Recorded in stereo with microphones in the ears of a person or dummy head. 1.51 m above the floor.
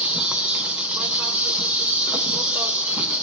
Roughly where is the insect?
Centre.